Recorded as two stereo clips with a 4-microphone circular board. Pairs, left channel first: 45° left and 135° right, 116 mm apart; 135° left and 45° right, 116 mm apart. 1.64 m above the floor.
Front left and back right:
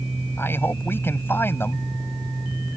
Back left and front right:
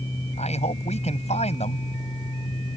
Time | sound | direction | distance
0.4 | a man speaking | 115° left | ?